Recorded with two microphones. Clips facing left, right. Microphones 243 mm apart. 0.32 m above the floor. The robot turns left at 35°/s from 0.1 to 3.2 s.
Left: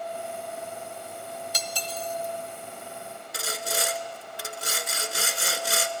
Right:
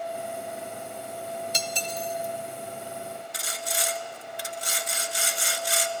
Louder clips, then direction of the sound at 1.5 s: Right 2 dB; 25° right (ahead or behind).